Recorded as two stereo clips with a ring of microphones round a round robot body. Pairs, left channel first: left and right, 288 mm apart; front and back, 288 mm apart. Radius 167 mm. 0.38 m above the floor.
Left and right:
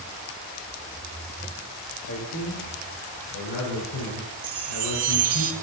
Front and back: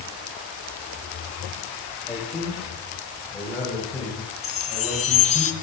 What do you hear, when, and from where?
2.1 s a man speaking: 90° left, 3 m
4.4 s a chime: 70° right, 1.3 m